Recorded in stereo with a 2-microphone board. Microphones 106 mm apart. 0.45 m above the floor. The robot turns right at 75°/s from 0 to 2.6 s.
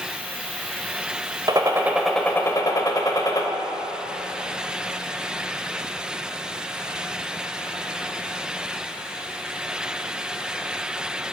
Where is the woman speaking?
No woman speaking in this recording.